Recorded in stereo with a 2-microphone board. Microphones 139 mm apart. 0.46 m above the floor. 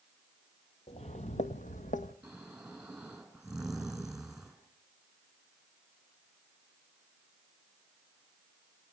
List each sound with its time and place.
0.9 s footsteps: 50° left (ahead or behind), 0.9 m; by 2.1 s 70° left (ahead or behind), 1.6 m
2.2 s snoring: 5° right (ahead or behind), 4.5 m